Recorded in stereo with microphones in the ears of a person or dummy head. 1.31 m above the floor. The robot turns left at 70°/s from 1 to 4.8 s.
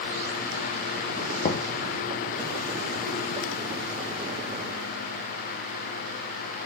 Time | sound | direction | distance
1.4 | knocking | 35° left (ahead or behind) | 0.5 m